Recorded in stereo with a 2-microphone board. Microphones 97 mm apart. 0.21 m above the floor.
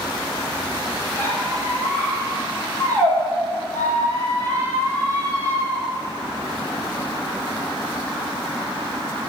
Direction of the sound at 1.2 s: 20° left (ahead or behind).